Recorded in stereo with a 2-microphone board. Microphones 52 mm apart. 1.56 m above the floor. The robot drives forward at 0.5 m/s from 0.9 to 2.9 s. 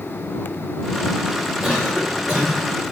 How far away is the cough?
About 4.5 m.